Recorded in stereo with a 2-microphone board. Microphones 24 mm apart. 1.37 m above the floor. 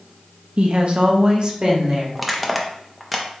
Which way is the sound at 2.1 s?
Centre (ahead or behind).